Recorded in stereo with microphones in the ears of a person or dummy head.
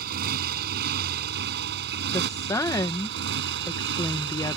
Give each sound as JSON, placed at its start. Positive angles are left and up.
{"t": 0.0, "sound": "a motorcycle", "side_deg": -65}
{"t": 2.1, "sound": "a woman speaking", "side_deg": 15}